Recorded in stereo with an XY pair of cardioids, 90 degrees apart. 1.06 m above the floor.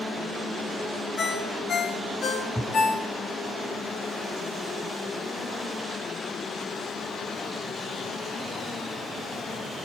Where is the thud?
20° left, 3 m.